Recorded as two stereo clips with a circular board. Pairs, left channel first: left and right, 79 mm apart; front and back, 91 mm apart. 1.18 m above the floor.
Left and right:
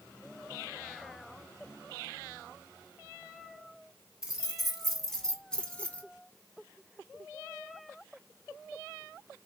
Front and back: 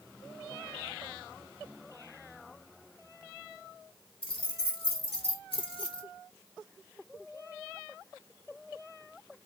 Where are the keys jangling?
5° right, 2 m; by 6.0 s 20° left, 1.4 m.